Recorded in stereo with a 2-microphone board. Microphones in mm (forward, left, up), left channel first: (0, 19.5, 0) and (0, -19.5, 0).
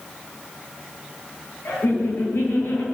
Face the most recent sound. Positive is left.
turn(degrees=60)  # may be behind; listen again after turning